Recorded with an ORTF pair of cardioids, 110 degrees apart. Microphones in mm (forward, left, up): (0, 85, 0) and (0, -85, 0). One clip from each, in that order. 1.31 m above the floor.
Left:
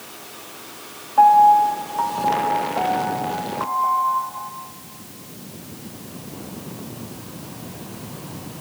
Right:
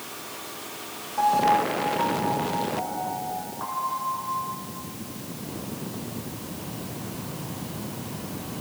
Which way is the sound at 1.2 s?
50° left.